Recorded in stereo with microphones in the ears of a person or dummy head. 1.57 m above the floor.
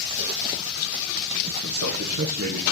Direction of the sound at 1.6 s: 70° right (ahead or behind).